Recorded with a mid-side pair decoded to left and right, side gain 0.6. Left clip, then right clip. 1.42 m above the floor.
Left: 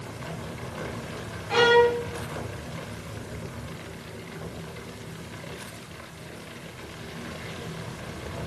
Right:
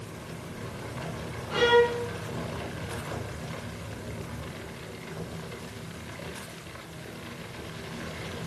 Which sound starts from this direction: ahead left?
A violin, at 1.5 s.